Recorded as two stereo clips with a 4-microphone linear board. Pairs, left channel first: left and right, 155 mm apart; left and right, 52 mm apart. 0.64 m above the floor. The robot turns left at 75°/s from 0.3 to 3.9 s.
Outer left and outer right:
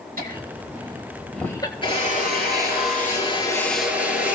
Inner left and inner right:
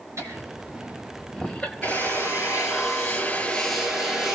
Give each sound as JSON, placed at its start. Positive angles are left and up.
{"t": 0.2, "sound": "laughter", "side_deg": -70, "distance_m": 3.0}
{"t": 1.8, "sound": "a drill", "azimuth_deg": 145, "distance_m": 4.5}